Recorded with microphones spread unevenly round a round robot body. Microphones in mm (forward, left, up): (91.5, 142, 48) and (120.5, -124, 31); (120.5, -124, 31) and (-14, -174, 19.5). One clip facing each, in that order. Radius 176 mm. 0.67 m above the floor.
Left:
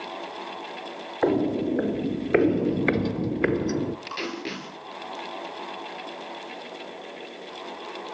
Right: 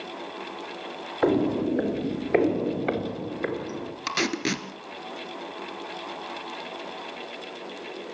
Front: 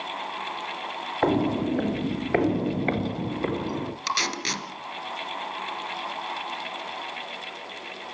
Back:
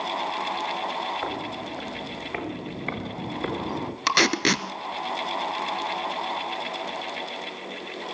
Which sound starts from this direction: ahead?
Footsteps, at 1.2 s.